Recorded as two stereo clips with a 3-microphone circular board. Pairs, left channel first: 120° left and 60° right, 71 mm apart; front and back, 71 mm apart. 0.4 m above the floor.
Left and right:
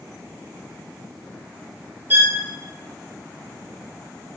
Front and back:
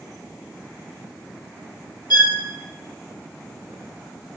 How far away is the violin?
About 2.5 m.